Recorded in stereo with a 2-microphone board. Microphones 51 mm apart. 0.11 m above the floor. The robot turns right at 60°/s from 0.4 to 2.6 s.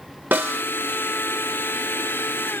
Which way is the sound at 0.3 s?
35° right (ahead or behind).